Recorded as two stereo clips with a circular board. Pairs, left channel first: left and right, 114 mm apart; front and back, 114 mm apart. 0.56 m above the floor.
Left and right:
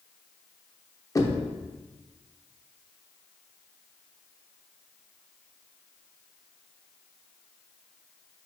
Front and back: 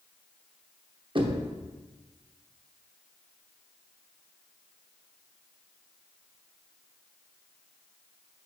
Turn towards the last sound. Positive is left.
turn(degrees=145)